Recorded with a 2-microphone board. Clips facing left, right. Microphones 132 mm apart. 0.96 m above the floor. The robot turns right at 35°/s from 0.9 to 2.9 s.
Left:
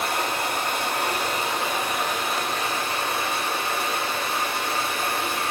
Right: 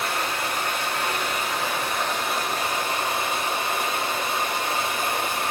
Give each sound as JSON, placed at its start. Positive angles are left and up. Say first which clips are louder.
{"t": 0.0, "sound": "running water", "louder": "left 1 dB", "azimuth_deg": 130, "distance_m": 1.5}